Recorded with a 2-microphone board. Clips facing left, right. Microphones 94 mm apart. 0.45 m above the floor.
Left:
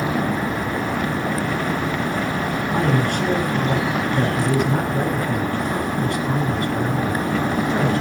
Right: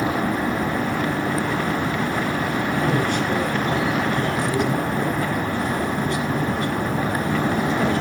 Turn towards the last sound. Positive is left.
turn(degrees=55)  # may be behind; listen again after turning